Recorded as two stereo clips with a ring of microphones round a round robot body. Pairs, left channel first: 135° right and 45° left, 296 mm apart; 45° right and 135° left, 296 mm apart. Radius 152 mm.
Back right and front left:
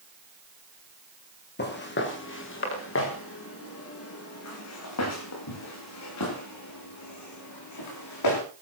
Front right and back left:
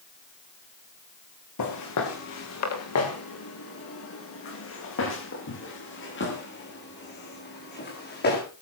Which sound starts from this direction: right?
Footsteps, at 1.6 s.